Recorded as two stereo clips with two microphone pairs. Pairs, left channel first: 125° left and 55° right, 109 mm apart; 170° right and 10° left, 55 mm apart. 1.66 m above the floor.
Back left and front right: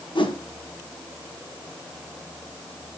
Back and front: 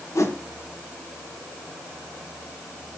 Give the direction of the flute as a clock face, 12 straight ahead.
I don't hear a flute.